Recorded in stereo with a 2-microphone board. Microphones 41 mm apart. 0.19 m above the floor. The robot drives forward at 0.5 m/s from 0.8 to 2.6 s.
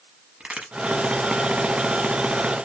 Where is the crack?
25° right (ahead or behind), 0.9 m.